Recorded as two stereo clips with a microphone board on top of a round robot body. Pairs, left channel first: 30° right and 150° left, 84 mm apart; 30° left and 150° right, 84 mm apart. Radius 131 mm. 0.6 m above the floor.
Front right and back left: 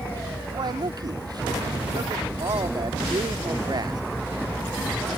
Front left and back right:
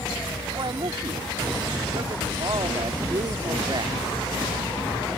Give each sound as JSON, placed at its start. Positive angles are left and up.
{"t": 0.5, "sound": "a man speaking", "azimuth_deg": 180}